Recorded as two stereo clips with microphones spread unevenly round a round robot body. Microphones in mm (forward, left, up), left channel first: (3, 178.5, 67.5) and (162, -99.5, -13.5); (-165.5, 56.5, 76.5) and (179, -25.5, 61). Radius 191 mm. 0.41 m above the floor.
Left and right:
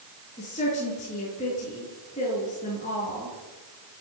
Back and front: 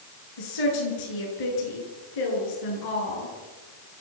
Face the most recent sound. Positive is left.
turn(degrees=-165)